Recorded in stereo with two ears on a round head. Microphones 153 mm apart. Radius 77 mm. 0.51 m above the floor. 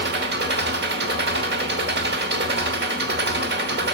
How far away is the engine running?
About 1.0 m.